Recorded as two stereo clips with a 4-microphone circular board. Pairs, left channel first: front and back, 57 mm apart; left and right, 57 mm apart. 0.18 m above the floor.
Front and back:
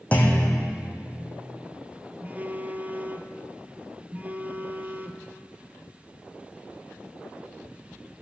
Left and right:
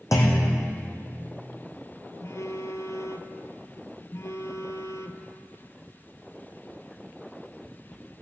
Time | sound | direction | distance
0.1 | a clunk | 65° left | 2.5 m
2.2 | a phone buzzing | 120° left | 0.9 m